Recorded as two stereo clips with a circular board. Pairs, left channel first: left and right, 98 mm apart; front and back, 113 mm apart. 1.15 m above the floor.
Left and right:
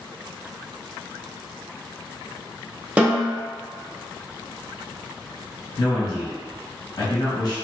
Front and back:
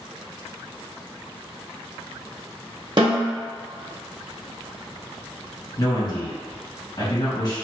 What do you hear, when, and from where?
3.0 s a snare drum: 160° right, 0.9 m
5.8 s a man speaking: 50° left, 1.4 m